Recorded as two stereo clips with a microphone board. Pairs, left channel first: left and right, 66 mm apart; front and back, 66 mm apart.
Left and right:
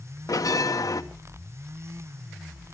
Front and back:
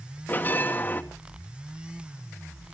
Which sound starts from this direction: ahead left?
A bell, at 0.3 s.